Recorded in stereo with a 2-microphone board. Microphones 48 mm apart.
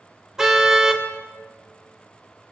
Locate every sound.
0.4 s a car horn: 10° right (ahead or behind), 3 m